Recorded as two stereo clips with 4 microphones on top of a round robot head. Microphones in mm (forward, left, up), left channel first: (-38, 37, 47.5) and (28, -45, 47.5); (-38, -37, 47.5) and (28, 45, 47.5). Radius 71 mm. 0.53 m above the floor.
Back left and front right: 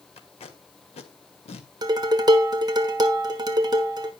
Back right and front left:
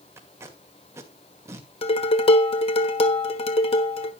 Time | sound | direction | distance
0.2 | tape being pulled | 115° left | 2 m
1.8 | dishes clattering | 100° right | 1.4 m